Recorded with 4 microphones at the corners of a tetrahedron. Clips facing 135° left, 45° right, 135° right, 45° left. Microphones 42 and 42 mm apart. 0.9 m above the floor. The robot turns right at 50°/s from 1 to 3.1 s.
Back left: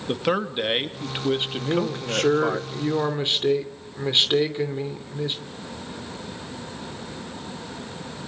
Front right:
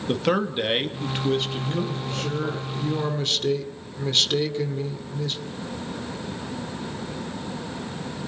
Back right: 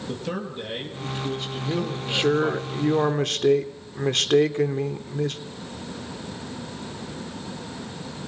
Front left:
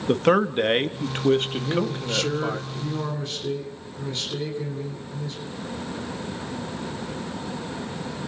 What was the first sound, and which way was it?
A man speaking, 50° left.